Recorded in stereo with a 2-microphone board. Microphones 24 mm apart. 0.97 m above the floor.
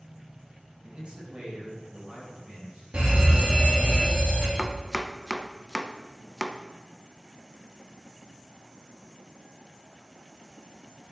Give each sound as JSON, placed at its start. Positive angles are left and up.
{"t": 0.8, "sound": "a man speaking", "side_deg": -40, "distance_m": 5.5}
{"t": 2.9, "sound": "a fire alarm", "side_deg": -55, "distance_m": 3.5}
{"t": 4.6, "sound": "chopping", "side_deg": -10, "distance_m": 0.7}